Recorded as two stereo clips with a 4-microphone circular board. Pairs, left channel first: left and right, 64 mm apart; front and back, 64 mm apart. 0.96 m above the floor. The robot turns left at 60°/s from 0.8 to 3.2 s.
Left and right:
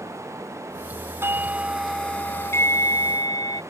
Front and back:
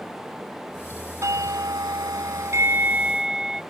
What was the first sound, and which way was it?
A doorbell, 140° right.